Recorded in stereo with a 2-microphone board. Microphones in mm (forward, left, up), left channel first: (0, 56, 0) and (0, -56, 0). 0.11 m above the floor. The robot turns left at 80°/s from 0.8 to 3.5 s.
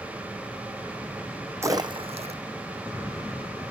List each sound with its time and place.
1.6 s a splash: 25° right (ahead or behind), 0.9 m; by 2.4 s 80° right, 0.9 m